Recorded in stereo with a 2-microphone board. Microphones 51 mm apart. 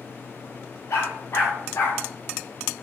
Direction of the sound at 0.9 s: 60° left (ahead or behind).